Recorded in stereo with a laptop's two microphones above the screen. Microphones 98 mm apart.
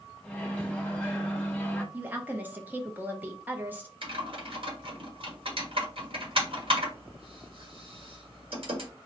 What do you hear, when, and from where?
0.2 s a microwave: 15° left (ahead or behind), 1.3 m
1.9 s a woman speaking: 20° right (ahead or behind), 0.7 m
4.0 s typing on a keyboard: 60° right (ahead or behind), 1.8 m